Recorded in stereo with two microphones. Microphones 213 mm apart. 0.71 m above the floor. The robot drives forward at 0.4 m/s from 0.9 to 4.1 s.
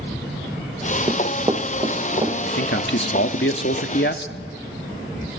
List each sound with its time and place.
1.1 s running footsteps: 15° right (ahead or behind), 1.5 m; by 2.3 s 20° right (ahead or behind), 3.5 m
2.4 s a man speaking: 55° left (ahead or behind), 1.3 m